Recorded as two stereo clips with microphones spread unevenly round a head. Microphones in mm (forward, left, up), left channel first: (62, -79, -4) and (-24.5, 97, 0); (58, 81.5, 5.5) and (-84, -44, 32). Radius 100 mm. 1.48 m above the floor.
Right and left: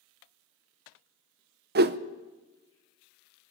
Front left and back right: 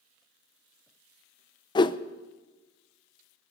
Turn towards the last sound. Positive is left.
turn(degrees=110)